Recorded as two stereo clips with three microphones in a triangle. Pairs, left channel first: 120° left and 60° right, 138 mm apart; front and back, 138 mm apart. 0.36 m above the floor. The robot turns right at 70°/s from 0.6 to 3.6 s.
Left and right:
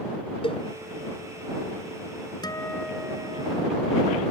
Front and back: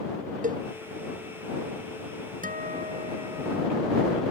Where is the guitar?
Straight behind; by 4.2 s 100° right.